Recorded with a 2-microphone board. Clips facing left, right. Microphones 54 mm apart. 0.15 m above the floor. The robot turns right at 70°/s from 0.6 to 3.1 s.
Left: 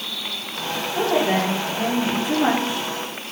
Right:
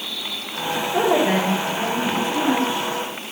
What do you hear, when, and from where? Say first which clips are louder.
0.9 s a woman speaking: right 2 dB; 50° right, 6.5 m; by 2.9 s 85° left, 6.5 m